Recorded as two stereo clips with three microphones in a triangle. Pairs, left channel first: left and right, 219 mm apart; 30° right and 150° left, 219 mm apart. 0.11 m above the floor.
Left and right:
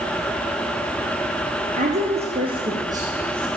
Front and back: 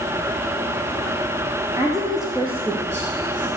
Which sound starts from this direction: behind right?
A woman speaking, at 1.8 s.